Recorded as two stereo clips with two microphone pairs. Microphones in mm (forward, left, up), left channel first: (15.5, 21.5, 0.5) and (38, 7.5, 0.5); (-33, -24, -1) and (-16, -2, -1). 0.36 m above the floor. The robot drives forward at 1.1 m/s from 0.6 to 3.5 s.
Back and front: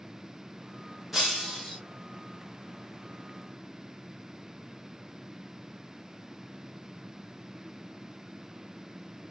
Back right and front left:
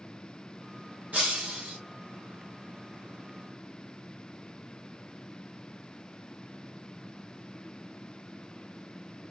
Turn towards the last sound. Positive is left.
turn(degrees=80)